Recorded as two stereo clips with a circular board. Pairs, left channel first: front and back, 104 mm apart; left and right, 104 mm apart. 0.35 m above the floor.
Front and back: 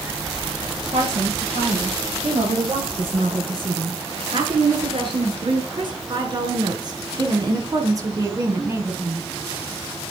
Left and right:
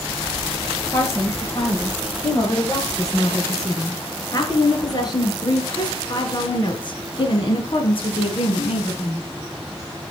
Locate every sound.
0.9 s a woman speaking: 150° left, 7.5 m; by 9.3 s 110° left, 3.5 m